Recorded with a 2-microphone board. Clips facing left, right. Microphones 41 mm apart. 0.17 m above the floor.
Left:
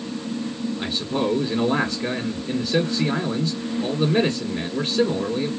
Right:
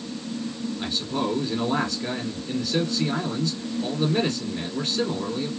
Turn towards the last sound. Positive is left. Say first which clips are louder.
# left 3 dB
turn(degrees=20)  # may be behind; listen again after turning